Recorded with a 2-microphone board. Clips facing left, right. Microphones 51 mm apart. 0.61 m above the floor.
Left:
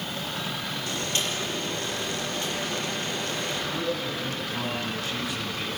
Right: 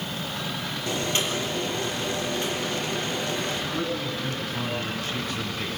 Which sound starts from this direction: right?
Boiling, at 0.9 s.